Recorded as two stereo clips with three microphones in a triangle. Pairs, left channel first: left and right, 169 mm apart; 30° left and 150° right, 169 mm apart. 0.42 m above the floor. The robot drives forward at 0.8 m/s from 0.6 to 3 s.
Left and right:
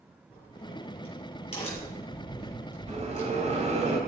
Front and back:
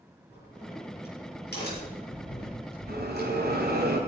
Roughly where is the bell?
Behind right.